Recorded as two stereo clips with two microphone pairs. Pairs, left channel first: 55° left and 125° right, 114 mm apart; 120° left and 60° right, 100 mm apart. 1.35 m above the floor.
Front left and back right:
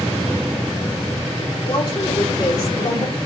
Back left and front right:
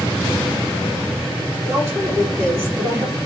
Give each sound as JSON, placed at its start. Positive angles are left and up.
{"t": 1.6, "sound": "a woman speaking", "azimuth_deg": 5, "distance_m": 3.5}